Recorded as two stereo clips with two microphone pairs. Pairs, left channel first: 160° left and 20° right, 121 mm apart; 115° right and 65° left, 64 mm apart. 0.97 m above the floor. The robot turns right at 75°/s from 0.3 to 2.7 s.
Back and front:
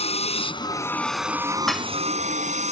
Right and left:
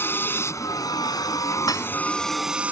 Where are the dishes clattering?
115° right; by 1.9 s 95° right.